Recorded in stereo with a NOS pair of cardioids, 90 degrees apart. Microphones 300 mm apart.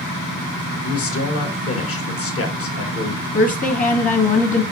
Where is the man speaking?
50° left, 1.4 m.